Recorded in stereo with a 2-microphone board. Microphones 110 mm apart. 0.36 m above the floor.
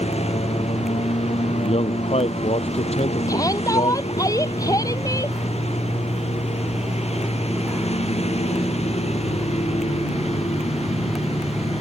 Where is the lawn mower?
75° left (ahead or behind).